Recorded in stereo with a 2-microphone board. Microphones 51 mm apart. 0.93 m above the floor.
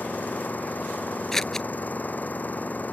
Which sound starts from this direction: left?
An engine running, at 0.0 s.